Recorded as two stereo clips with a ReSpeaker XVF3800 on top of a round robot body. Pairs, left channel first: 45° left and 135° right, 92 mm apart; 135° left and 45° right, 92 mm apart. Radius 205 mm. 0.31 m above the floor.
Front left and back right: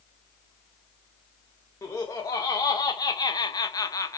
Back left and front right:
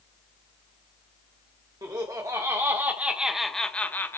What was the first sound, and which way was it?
Laughter, 5° right.